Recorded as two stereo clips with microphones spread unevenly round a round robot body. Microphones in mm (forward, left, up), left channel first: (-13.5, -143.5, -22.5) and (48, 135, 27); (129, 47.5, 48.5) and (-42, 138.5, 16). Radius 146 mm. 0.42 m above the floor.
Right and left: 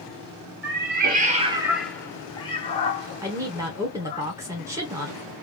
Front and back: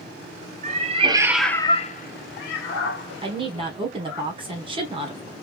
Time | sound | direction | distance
0.6 | a cat meowing | 130° left | 0.8 m
3.2 | a woman speaking | 165° left | 1.1 m